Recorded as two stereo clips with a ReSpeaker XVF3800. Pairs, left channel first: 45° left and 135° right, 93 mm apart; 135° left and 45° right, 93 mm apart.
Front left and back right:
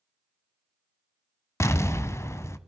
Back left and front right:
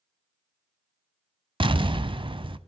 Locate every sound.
1.6 s an explosion: 15° right, 0.5 m